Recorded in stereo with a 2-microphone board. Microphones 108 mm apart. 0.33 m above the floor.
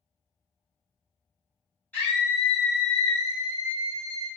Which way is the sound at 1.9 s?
15° left (ahead or behind).